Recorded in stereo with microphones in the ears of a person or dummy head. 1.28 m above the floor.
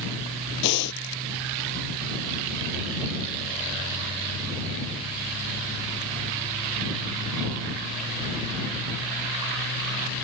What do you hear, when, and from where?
0.6 s breathing: 60° left (ahead or behind)